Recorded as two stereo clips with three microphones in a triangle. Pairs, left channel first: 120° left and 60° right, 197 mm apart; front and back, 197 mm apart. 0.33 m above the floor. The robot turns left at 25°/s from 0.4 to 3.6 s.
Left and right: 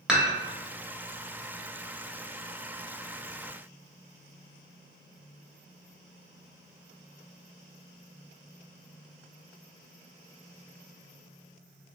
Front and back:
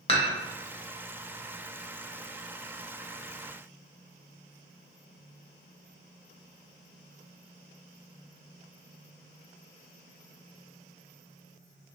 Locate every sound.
0.1 s dishes clattering: 25° left, 0.8 m